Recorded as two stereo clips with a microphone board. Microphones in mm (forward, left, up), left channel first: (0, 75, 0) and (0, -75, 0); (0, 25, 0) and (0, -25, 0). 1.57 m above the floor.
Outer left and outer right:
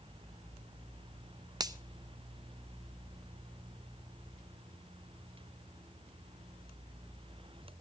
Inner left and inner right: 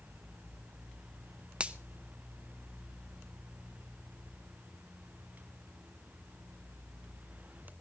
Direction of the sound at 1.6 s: 25° right (ahead or behind).